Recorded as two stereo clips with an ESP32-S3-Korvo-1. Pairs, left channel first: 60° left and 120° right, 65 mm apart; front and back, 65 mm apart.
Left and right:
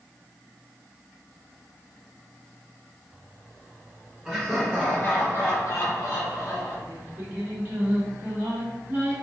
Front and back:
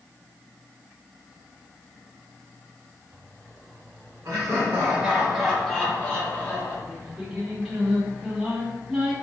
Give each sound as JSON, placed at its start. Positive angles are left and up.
{"t": 4.2, "sound": "laughter", "azimuth_deg": 145, "distance_m": 1.2}
{"t": 6.9, "sound": "singing", "azimuth_deg": -105, "distance_m": 0.9}